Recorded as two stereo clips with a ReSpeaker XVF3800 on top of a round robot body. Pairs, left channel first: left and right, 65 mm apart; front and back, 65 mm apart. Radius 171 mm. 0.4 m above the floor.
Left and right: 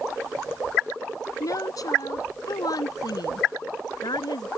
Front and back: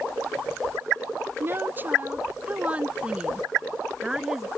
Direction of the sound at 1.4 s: 125° left.